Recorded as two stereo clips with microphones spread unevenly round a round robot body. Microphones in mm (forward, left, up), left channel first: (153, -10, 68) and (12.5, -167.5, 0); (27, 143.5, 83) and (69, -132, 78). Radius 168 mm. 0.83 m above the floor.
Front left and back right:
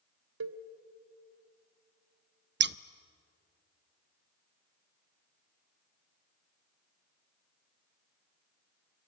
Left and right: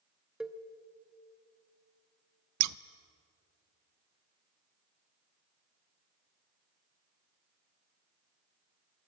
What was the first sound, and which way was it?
A cowbell, 170° right.